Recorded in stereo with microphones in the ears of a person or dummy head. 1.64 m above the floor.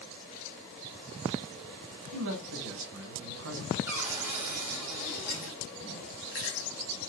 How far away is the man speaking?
About 1.0 m.